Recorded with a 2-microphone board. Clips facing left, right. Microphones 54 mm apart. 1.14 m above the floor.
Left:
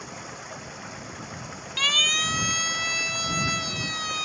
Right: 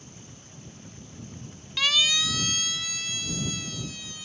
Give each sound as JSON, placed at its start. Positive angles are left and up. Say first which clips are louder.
{"t": 0.0, "sound": "running water", "louder": "left 11 dB", "side_deg": 80}
{"t": 1.8, "sound": "a siren", "louder": "left 1 dB", "side_deg": 10}